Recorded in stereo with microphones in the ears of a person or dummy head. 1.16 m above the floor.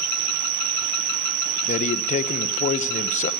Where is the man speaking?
35° left (ahead or behind), 1.1 m.